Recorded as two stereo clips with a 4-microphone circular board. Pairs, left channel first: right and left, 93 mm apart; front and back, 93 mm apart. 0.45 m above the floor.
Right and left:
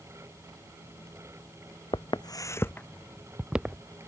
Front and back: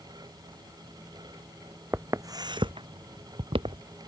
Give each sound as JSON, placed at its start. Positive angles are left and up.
{"t": 1.9, "sound": "footsteps", "azimuth_deg": -115}